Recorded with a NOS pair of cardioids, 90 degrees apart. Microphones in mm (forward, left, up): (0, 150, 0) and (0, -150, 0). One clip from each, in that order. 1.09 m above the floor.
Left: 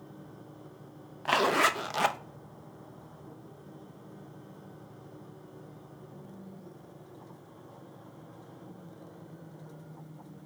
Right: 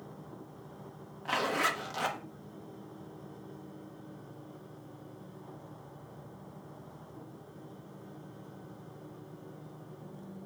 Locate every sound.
1.2 s a zipper: 35° left, 0.5 m